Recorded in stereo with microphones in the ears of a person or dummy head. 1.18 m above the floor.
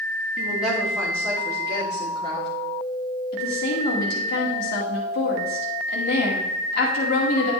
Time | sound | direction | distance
0.4 | a woman speaking | 5° right (ahead or behind) | 2.5 m
3.3 | a woman speaking | 60° left (ahead or behind) | 2 m